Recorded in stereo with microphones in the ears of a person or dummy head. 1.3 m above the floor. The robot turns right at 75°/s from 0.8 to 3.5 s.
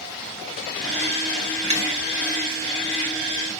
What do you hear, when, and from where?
1.7 s tapping: 30° right (ahead or behind), 0.9 m; by 1.9 s 40° right (ahead or behind), 0.9 m